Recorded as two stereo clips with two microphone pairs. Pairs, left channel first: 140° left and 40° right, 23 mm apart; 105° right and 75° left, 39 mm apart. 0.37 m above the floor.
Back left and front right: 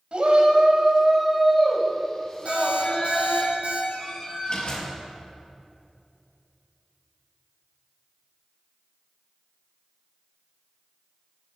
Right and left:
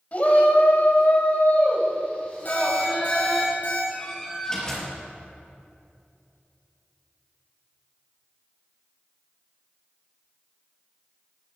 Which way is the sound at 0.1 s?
60° right.